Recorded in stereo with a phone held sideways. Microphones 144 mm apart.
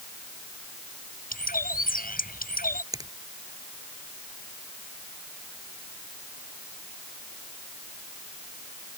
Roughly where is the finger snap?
Right.